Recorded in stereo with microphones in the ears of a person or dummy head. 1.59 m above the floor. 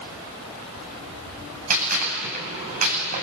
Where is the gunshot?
45° right (ahead or behind), 8 m.